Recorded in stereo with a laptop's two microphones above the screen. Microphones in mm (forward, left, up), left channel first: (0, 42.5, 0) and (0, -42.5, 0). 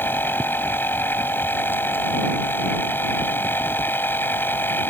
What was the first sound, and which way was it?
A machine running, 25° left (ahead or behind).